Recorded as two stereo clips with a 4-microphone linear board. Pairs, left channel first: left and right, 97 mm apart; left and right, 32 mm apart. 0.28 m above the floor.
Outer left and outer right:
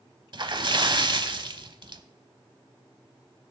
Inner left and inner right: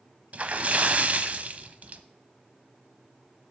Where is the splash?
50° right (ahead or behind), 0.7 m.